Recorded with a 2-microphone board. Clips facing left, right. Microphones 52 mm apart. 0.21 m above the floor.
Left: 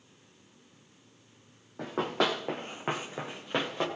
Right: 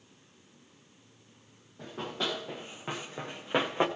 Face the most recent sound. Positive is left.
turn(degrees=-25)  # may be behind; listen again after turning